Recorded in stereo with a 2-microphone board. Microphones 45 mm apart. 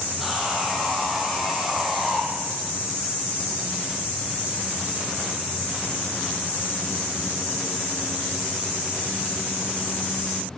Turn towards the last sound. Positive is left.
turn(degrees=-5)  # may be behind; listen again after turning